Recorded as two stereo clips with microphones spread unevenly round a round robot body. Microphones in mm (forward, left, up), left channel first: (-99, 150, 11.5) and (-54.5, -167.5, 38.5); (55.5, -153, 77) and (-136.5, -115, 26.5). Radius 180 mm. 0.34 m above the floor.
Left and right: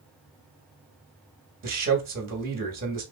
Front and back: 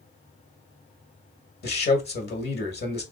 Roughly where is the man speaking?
Ahead right.